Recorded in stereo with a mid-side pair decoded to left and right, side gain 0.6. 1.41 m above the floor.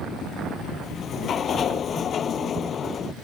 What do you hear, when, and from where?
0.8 s a sliding door: 40° left